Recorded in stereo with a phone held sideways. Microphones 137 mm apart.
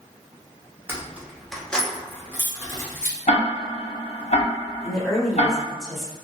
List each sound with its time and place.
0.9 s keys jangling: 15° right (ahead or behind), 0.6 m; by 3.1 s 20° left (ahead or behind), 1.2 m
3.3 s ticking: 50° left (ahead or behind), 0.8 m
4.8 s a woman speaking: centre (ahead or behind), 1.2 m